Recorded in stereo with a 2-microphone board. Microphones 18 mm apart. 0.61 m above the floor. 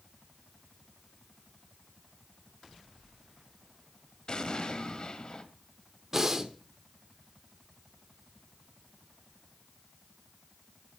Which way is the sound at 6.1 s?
25° right (ahead or behind).